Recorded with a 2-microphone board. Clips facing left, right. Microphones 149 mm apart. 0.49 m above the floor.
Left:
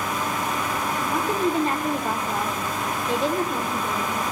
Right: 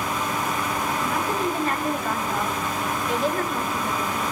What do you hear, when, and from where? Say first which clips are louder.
1.0 s a woman speaking: left 4 dB; 25° left (ahead or behind), 1.5 m